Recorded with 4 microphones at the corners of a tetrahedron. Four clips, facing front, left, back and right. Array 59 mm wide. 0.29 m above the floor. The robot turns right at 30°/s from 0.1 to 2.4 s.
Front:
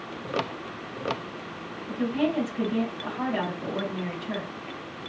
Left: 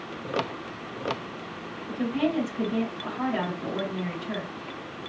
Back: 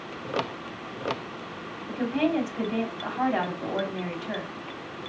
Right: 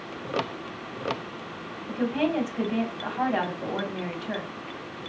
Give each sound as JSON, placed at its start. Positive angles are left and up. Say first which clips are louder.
{"t": 1.9, "sound": "a woman speaking", "louder": "right 1 dB, back 1 dB", "azimuth_deg": -145, "distance_m": 2.0}